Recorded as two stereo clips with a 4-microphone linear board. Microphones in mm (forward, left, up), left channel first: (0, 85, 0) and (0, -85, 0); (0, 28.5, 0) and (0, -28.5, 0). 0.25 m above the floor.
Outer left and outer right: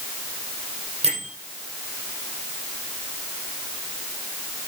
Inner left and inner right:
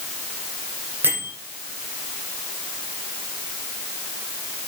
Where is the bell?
35° right (ahead or behind), 5 m.